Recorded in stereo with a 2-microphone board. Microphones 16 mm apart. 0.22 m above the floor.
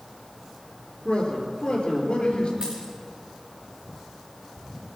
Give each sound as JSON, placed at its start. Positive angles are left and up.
{"t": 1.1, "sound": "a man speaking", "side_deg": 65, "distance_m": 5.0}
{"t": 2.6, "sound": "a dropped coin", "side_deg": -60, "distance_m": 7.0}